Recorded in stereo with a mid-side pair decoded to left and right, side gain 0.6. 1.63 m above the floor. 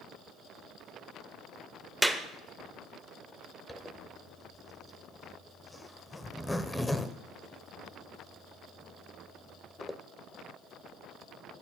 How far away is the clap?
About 0.8 m.